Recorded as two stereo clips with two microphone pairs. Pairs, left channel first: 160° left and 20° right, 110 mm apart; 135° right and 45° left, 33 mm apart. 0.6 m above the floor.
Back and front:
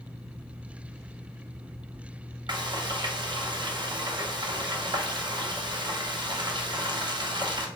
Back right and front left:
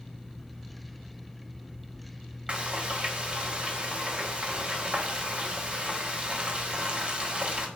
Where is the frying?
5° left, 0.6 m.